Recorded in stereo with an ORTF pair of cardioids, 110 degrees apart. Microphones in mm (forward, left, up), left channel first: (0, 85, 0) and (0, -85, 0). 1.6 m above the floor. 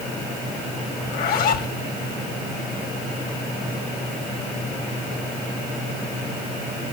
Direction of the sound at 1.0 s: 70° left.